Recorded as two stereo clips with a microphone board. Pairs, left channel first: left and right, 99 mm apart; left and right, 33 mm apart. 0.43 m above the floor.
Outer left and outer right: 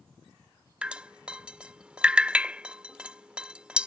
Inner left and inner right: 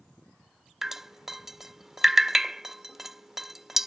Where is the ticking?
No ticking in this recording.